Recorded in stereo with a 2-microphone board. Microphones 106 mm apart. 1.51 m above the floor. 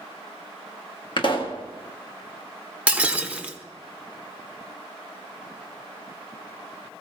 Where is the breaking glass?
15° right (ahead or behind), 1.0 m.